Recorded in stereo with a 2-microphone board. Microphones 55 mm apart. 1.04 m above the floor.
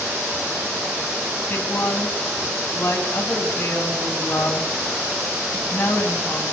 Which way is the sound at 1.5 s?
30° left (ahead or behind).